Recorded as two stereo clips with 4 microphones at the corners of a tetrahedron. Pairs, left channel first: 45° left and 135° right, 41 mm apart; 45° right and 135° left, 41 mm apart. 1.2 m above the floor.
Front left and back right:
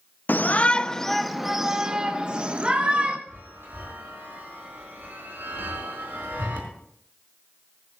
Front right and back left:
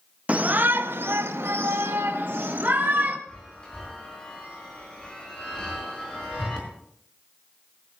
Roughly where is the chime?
Behind right.